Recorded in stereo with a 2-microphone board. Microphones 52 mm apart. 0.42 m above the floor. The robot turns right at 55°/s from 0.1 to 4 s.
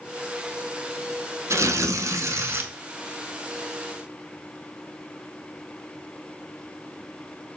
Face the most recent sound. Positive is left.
turn(degrees=25)